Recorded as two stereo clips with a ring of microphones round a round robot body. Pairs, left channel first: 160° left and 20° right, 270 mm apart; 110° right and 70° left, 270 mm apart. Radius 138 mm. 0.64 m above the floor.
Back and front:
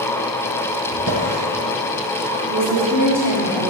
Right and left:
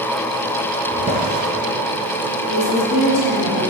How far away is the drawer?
About 3 m.